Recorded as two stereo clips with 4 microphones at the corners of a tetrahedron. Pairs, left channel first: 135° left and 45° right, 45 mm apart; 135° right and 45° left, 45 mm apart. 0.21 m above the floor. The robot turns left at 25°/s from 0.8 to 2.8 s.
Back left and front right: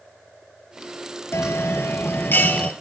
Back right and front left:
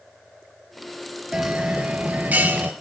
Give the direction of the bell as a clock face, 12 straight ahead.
8 o'clock.